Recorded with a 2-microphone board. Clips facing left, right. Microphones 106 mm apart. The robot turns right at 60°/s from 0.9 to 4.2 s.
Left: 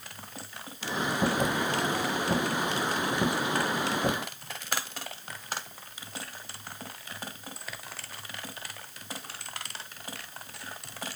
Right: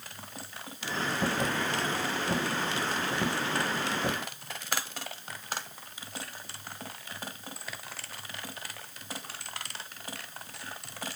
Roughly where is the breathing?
No breathing in this recording.